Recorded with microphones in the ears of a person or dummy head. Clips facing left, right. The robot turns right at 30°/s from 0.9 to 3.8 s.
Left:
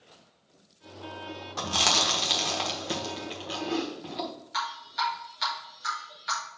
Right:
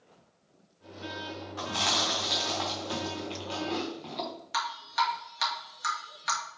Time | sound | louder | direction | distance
1.6 | chewing | left 3 dB | 55° left (ahead or behind) | 1.0 m
4.5 | dripping | right 2 dB | 65° right (ahead or behind) | 1.8 m